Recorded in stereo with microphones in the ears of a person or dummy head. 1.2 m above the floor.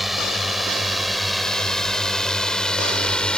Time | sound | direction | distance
0.0 | a drone | centre (ahead or behind) | ?